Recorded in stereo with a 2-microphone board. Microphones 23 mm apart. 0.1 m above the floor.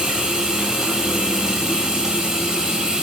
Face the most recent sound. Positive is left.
turn(degrees=-20)  # may be behind; listen again after turning